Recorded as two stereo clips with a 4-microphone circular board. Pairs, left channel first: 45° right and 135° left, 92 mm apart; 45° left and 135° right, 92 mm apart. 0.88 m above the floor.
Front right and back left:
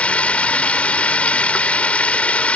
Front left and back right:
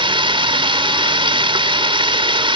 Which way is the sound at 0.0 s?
120° right.